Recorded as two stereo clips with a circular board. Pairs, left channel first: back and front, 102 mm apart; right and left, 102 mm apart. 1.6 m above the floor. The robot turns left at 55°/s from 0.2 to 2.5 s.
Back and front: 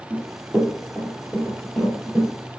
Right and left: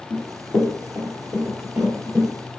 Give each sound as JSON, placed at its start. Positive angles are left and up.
{"t": 0.1, "sound": "running footsteps", "azimuth_deg": -55, "distance_m": 1.9}